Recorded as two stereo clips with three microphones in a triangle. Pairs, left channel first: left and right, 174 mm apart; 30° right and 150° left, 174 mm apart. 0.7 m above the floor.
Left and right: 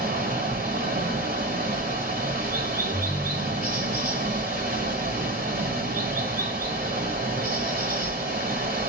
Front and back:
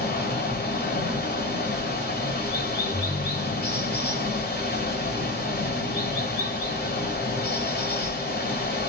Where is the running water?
55° right, 1.8 m.